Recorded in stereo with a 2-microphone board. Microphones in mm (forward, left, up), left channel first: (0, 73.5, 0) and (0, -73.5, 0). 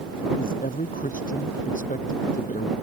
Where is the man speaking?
70° left (ahead or behind); by 2.7 s 65° left (ahead or behind).